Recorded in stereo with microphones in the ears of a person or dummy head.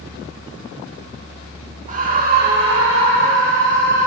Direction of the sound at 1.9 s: 40° right (ahead or behind).